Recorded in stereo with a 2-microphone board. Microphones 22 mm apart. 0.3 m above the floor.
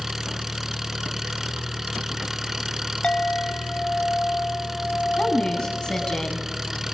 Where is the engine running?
15° right (ahead or behind), 1.0 m.